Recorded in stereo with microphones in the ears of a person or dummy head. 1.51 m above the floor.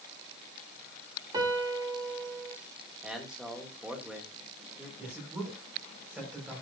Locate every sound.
1.3 s a piano: 25° right (ahead or behind), 2.5 m
3.0 s a man speaking: centre (ahead or behind), 2.5 m
5.0 s a man speaking: centre (ahead or behind), 5.5 m